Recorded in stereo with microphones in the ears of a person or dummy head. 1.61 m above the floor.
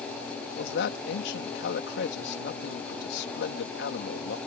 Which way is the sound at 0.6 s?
75° left (ahead or behind).